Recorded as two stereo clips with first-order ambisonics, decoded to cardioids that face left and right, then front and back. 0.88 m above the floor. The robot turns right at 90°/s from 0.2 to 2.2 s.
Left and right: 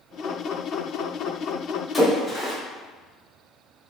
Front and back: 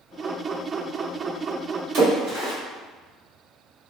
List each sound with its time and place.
1.9 s a splash: 165° left, 1.7 m; by 2.5 s 175° right, 1.7 m